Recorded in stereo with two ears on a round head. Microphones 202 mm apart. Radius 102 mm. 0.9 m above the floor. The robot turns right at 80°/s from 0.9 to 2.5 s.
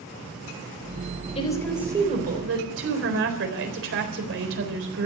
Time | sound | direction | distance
1.4 | a woman speaking | 150° left | 4 m